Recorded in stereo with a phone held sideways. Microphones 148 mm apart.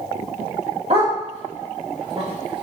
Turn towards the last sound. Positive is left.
turn(degrees=-45)  # may be behind; listen again after turning